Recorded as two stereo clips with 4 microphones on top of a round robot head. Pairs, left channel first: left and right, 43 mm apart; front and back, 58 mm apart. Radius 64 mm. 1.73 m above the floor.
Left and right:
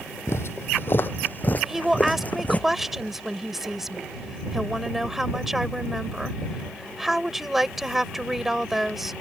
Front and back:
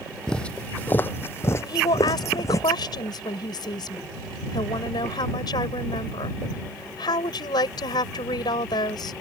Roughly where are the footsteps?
Left.